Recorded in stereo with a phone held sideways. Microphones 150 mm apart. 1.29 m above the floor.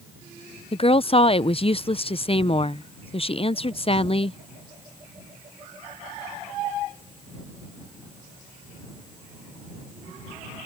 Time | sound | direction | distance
0.7 | a woman speaking | 40° left (ahead or behind) | ?